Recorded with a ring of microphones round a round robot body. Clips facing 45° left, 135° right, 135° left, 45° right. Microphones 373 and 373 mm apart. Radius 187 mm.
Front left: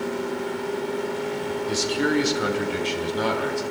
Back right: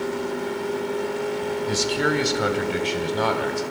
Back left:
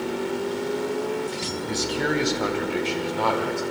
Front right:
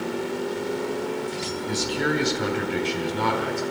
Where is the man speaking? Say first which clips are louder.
Front left 1 dB, even; 115° right, 2.5 m; by 3.6 s 105° right, 3.5 m.